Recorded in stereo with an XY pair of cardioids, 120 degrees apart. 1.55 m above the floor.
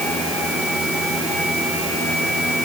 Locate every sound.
Only background noise.